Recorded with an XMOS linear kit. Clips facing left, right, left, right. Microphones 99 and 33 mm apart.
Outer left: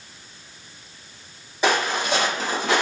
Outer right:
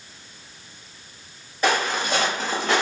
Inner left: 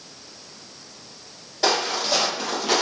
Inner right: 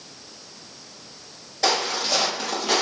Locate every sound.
1.6 s footsteps: 10° left (ahead or behind), 1.8 m; by 2.8 s centre (ahead or behind), 1.4 m